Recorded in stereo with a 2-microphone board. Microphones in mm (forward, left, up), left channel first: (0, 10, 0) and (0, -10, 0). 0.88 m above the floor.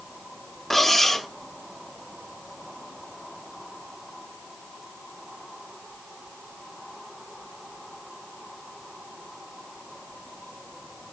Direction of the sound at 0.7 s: Centre (ahead or behind).